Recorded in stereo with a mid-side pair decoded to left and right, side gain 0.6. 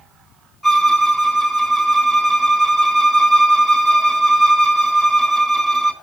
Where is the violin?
10° right, 6.5 m.